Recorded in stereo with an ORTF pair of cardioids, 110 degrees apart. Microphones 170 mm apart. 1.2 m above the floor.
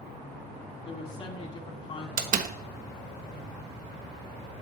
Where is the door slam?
50° right, 1.1 m.